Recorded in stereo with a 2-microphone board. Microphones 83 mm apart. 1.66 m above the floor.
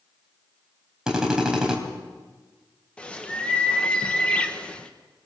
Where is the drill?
10° right (ahead or behind), 4 m.